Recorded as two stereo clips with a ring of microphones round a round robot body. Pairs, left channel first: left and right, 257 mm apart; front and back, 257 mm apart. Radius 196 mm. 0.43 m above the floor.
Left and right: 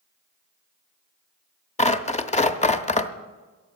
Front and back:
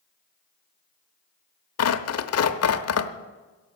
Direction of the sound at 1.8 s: 25° left.